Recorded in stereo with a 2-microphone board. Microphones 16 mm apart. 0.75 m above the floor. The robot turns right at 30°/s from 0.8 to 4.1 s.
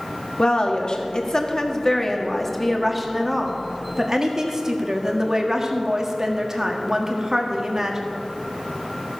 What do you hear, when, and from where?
0.4 s a woman speaking: 120° left, 1.4 m; by 8.0 s 140° right, 1.4 m